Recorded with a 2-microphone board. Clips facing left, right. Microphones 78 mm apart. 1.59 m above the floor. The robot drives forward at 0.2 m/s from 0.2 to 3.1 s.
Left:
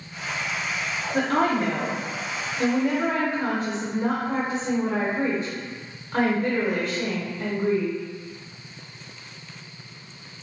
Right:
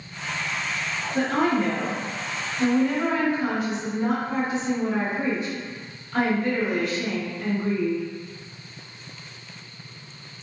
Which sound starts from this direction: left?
A woman speaking, at 1.1 s.